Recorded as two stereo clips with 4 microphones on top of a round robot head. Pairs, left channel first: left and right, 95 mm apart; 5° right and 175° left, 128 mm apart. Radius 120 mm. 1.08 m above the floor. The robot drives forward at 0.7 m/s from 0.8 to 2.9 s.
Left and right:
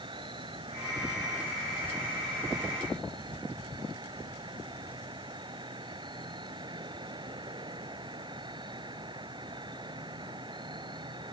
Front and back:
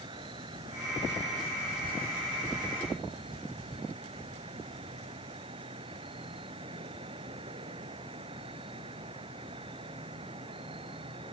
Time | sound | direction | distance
0.0 | an insect | 125° right | ?